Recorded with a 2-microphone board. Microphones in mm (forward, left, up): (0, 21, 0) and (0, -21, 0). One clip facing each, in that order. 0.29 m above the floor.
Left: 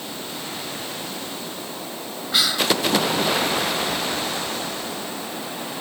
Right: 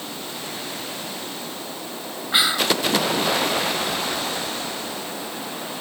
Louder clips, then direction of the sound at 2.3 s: Right 1 dB; 20° right (ahead or behind).